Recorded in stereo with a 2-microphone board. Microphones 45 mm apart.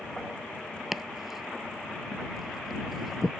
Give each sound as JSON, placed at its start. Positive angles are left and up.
{"t": 0.9, "sound": "chopping", "side_deg": -5}